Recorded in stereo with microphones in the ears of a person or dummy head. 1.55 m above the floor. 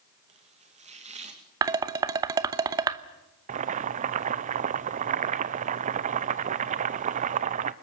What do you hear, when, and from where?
0.3 s chopping: 30° right (ahead or behind), 2.5 m
1.6 s dishes clattering: 20° right (ahead or behind), 0.9 m
3.5 s boiling: 35° right (ahead or behind), 0.7 m